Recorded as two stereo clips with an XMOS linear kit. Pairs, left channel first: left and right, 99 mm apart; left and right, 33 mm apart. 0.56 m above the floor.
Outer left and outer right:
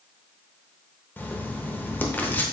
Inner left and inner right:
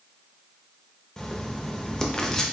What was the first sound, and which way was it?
Writing, 20° left (ahead or behind).